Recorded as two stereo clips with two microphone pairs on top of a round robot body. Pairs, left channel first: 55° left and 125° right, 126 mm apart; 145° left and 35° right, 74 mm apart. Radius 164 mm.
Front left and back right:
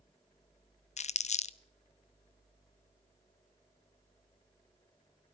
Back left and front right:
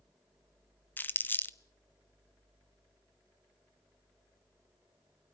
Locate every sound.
1.0 s crumpling: 80° left, 0.6 m